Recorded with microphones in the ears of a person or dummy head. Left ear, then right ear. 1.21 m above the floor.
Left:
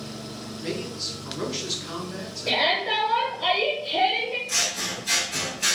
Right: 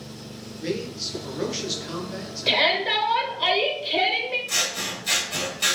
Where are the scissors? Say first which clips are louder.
Even; 35° right (ahead or behind), 1.4 m.